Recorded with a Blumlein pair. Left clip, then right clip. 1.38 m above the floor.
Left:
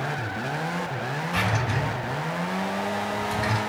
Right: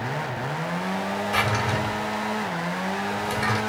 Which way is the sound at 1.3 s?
60° right.